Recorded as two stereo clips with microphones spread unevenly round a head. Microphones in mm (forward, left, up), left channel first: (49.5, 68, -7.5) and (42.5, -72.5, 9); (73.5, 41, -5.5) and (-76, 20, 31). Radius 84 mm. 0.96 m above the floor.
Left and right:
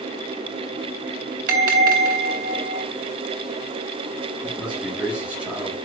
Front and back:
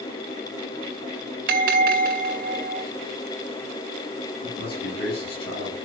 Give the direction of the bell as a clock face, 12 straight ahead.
5 o'clock.